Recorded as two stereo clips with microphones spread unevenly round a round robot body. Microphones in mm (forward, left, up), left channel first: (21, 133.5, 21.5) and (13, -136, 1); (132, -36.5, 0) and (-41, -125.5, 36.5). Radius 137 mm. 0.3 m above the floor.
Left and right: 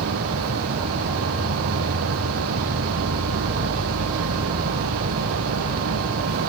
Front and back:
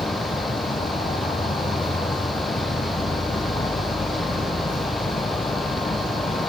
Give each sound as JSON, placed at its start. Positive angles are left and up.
{"t": 0.0, "sound": "an insect", "azimuth_deg": -35}